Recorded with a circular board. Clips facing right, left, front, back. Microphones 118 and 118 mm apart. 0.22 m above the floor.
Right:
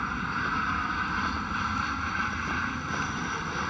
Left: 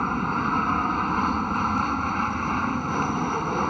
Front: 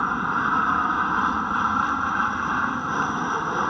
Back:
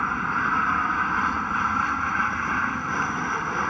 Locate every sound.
0.0 s an aircraft: 70° left